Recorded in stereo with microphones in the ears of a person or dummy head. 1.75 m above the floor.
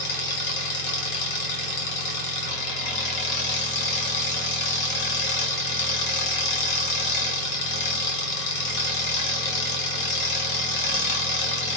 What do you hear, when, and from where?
0.0 s an engine running: 60° left (ahead or behind), 1.3 m